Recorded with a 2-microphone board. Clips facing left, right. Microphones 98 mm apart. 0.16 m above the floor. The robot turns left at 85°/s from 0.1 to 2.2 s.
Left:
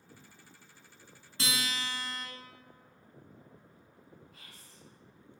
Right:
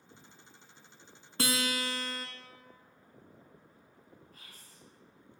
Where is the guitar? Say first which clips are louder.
Right 4 dB; 70° right, 0.6 m; by 2.3 s 140° right, 0.6 m.